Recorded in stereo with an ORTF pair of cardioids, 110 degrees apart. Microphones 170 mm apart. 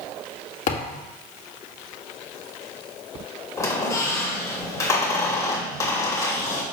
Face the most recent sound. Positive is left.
turn(degrees=20)